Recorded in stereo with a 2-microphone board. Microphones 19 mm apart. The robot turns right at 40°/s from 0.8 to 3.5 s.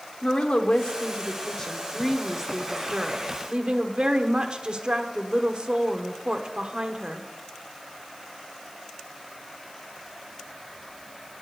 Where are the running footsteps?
I don't hear running footsteps.